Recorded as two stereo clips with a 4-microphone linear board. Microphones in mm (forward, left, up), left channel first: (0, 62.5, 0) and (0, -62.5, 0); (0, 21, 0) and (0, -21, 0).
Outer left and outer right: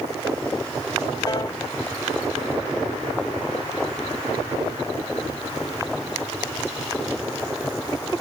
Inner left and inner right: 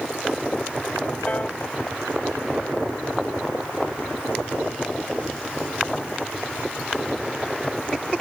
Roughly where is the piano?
Left.